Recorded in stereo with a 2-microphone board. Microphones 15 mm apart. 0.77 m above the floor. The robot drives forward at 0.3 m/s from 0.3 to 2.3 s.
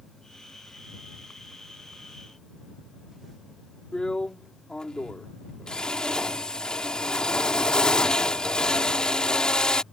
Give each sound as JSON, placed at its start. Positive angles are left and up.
{"t": 3.9, "sound": "a drill", "side_deg": 65}